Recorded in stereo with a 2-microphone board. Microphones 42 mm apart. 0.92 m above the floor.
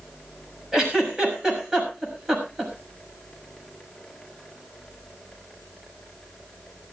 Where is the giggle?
15° right (ahead or behind), 6 m.